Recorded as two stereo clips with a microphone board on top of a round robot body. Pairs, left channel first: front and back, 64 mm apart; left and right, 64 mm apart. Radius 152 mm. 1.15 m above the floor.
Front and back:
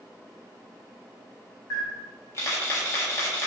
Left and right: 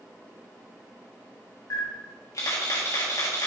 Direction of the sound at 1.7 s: 50° left.